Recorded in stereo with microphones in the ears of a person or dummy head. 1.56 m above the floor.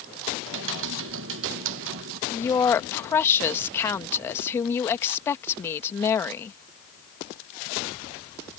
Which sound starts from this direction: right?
Typing on a keyboard, at 0.4 s.